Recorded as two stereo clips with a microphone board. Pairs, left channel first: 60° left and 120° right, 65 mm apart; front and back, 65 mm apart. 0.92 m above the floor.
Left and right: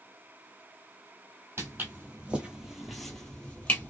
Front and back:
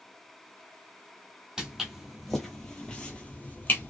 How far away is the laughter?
I don't hear laughter.